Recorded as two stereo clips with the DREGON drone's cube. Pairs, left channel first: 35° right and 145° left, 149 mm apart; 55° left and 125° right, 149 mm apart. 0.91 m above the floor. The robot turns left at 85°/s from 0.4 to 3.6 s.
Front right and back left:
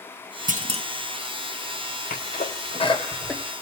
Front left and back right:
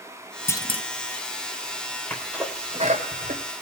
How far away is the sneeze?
About 4 m.